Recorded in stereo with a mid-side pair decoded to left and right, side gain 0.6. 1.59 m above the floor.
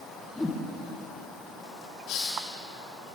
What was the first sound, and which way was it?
A whoosh, 10° left.